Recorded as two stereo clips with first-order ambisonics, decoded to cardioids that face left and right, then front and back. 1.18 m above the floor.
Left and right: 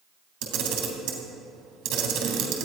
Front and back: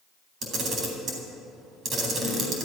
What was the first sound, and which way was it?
A camera shutter, 120° right.